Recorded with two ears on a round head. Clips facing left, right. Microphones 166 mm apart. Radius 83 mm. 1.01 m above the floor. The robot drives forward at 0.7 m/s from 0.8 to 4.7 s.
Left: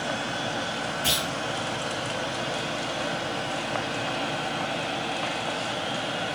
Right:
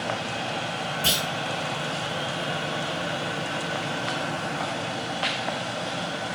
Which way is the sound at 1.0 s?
65° right (ahead or behind).